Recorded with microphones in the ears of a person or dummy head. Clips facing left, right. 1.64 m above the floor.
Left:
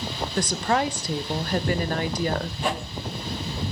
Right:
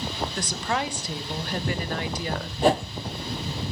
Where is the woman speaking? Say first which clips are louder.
Left 7 dB; 40° left (ahead or behind), 1.0 m.